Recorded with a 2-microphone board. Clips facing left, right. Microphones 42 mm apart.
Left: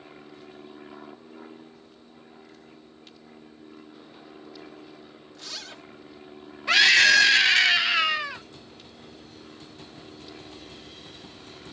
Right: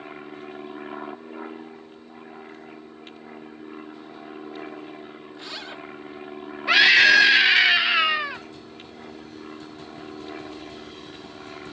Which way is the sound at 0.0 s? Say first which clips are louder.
Right 8 dB; 40° right (ahead or behind).